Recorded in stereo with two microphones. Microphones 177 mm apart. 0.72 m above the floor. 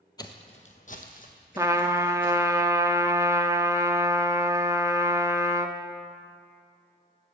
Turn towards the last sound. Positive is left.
turn(degrees=-15)  # may be behind; listen again after turning